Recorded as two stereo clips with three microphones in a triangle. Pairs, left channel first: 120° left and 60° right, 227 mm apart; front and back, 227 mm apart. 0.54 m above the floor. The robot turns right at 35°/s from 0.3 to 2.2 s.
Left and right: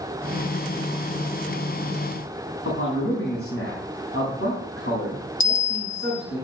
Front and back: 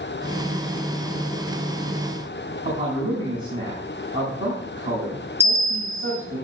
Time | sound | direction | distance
2.6 | a man speaking | 130° left | 4 m
5.4 | a bell | 100° left | 1.6 m